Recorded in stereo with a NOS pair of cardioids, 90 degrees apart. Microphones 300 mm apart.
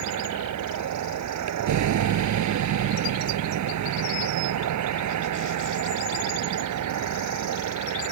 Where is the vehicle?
70° right.